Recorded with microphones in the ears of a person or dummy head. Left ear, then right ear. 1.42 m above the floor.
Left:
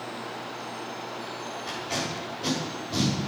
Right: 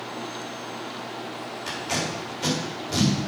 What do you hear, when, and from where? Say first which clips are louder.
1.7 s tape being pulled: right 3 dB; 80° right, 3 m